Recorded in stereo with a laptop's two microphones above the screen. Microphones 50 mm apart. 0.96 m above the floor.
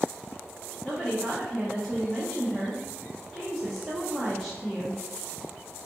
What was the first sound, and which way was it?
A woman speaking, 10° left (ahead or behind).